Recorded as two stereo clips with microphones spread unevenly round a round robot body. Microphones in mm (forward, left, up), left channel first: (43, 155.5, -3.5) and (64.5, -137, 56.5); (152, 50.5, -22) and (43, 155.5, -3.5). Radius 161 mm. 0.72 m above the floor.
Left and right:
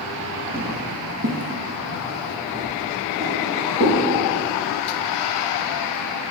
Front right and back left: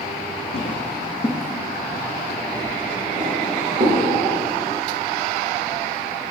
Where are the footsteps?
40° right, 1.4 m; by 4.0 s 170° right, 4.5 m.